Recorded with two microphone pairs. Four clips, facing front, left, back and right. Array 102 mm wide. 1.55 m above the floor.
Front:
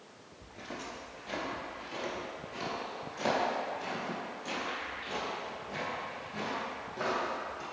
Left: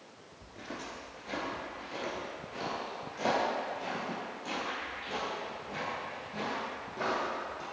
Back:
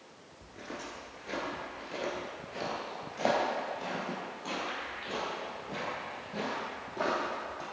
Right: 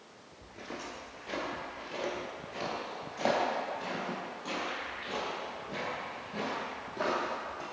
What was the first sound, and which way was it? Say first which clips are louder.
Footsteps: even, even; 150° left.